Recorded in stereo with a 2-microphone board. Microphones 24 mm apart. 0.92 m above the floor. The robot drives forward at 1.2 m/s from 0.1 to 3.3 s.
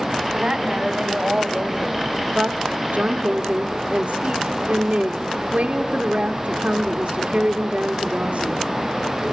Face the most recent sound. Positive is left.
turn(degrees=-65)  # may be behind; listen again after turning